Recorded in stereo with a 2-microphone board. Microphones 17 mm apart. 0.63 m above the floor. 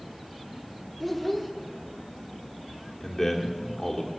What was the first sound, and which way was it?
A child speaking, centre (ahead or behind).